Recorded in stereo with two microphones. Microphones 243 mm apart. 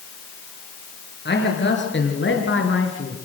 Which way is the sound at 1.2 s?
45° left (ahead or behind).